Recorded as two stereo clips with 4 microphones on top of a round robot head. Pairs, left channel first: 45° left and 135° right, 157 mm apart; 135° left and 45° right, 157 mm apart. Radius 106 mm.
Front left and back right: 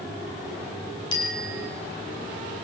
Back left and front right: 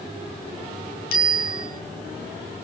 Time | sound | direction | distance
1.1 | a bicycle bell | 110° left | 5.5 m